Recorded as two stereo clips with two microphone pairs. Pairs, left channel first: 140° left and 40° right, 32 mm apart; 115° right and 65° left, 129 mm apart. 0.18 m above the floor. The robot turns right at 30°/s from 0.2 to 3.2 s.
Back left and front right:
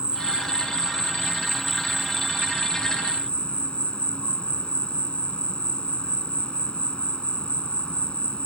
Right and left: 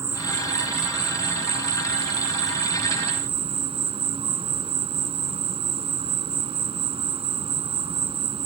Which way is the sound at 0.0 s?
5° left.